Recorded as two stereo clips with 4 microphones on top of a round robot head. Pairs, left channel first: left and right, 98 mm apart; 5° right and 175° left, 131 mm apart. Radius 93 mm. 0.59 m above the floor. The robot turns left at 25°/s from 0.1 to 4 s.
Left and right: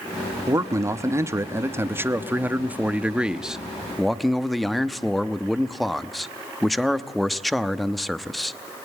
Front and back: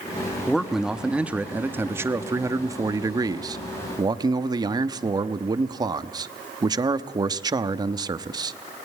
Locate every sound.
0.5 s a man speaking: 90° right, 1.0 m; by 8.6 s straight behind, 1.0 m